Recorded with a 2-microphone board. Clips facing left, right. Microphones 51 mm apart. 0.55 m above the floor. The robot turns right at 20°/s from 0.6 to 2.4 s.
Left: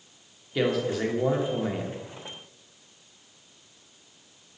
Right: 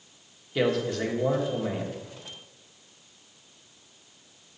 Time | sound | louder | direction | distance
0.6 | a man speaking | even | 5° left (ahead or behind) | 1.1 m